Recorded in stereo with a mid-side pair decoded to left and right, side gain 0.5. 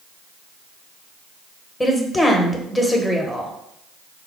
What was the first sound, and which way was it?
A woman speaking, 15° left.